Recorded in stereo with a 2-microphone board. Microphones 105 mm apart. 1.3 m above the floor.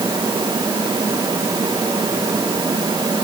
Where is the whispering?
I don't hear whispering.